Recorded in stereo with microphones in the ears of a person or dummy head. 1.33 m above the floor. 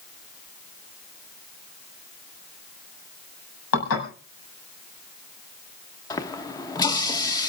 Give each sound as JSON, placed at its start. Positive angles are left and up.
{"t": 3.7, "sound": "dishes clattering", "side_deg": 85, "distance_m": 6.5}
{"t": 6.1, "sound": "a running tap", "side_deg": 20, "distance_m": 1.0}